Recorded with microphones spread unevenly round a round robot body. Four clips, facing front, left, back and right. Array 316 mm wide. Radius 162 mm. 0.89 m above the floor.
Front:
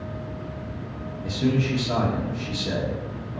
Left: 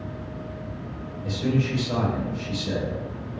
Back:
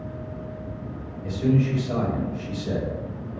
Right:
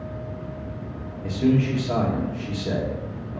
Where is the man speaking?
55° right, 2.5 m.